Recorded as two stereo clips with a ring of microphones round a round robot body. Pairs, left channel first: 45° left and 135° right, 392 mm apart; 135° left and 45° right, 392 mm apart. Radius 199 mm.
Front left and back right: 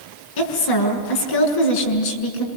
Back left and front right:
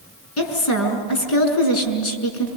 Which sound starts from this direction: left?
A woman speaking, at 0.4 s.